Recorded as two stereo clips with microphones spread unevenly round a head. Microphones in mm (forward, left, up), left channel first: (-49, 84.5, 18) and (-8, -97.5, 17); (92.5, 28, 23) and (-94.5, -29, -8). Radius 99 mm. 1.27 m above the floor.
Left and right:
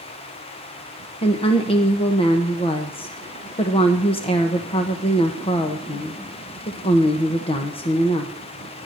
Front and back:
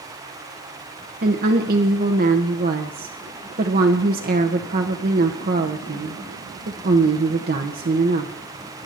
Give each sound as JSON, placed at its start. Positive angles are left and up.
{"t": 1.2, "sound": "a woman speaking", "azimuth_deg": 165, "distance_m": 1.1}